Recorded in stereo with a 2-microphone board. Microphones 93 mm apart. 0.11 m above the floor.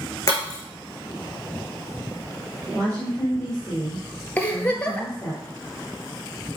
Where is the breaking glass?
35° left (ahead or behind), 3.5 m.